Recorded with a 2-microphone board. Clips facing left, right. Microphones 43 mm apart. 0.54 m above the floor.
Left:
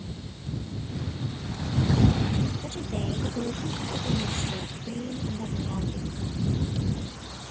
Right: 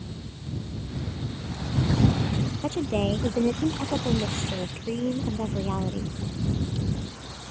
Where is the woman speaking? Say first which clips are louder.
Right 7 dB; 50° right (ahead or behind).